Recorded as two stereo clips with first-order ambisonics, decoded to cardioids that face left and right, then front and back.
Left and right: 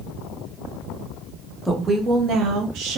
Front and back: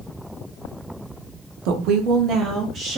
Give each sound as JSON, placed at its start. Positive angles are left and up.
{"t": 1.6, "sound": "a woman speaking", "azimuth_deg": 175, "distance_m": 0.5}